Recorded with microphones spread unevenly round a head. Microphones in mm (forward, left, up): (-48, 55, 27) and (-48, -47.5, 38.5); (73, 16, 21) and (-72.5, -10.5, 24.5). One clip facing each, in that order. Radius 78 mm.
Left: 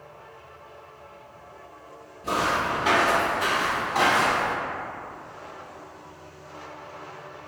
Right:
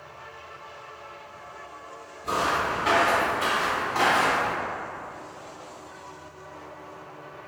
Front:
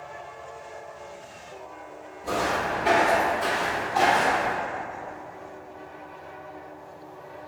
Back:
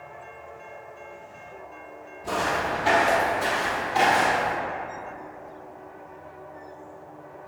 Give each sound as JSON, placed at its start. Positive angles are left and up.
{"t": 2.2, "sound": "footsteps", "azimuth_deg": 50, "distance_m": 1.7}